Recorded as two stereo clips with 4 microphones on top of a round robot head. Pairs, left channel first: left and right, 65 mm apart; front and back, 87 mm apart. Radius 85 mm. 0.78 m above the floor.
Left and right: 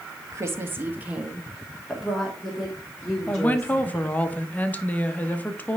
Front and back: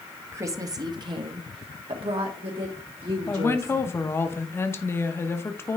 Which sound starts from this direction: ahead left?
A woman speaking, at 3.3 s.